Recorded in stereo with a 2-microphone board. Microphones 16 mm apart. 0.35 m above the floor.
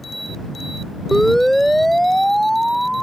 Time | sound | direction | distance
1.1 | a siren | 25° left (ahead or behind) | ?